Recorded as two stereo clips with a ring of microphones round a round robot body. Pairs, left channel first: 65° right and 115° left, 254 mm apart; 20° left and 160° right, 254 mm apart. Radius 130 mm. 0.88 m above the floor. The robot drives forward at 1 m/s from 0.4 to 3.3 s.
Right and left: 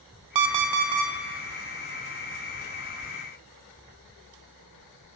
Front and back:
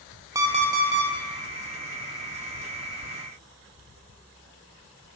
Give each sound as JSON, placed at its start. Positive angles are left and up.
{"t": 0.3, "sound": "an alarm clock", "azimuth_deg": 125, "distance_m": 0.5}